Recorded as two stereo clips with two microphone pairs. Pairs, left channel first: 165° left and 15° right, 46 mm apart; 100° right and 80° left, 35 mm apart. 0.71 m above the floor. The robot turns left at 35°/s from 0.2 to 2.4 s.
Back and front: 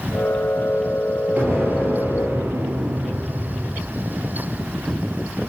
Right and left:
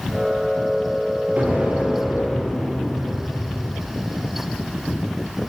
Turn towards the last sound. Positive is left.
turn(degrees=-5)